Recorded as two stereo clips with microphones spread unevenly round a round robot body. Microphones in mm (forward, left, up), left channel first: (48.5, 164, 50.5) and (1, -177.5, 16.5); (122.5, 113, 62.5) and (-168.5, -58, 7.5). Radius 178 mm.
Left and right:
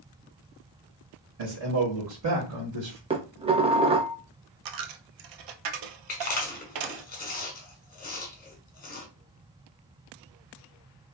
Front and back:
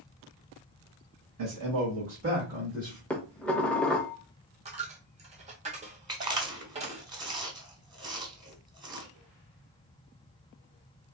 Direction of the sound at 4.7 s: 75° right.